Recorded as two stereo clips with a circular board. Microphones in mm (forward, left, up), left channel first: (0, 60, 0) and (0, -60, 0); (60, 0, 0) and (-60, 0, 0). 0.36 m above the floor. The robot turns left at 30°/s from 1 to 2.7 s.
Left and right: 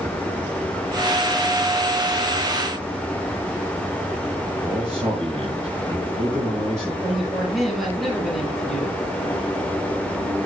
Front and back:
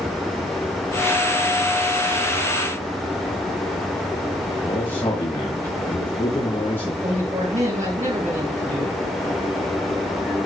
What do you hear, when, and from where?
4.6 s a man speaking: 70° right, 5.5 m
7.0 s a man speaking: straight behind, 7 m